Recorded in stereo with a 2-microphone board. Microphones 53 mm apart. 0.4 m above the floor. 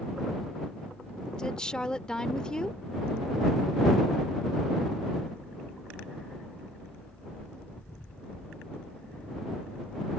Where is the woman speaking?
15° left (ahead or behind).